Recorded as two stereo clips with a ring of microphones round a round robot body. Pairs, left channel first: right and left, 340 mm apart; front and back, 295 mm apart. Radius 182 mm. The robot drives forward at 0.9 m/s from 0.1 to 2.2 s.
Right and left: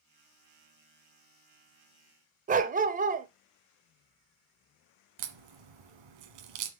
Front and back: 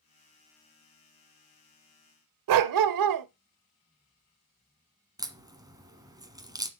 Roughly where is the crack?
Left.